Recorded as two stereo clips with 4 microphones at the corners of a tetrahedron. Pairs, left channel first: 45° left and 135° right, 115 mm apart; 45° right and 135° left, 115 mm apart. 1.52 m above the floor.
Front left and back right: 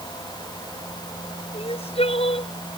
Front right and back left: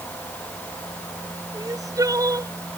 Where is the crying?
75° left.